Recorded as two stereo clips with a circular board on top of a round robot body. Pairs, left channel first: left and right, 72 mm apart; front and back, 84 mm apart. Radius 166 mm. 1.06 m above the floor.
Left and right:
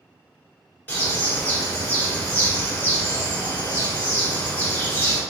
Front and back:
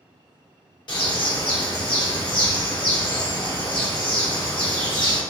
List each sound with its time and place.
0.9 s a bird: 25° left, 1.8 m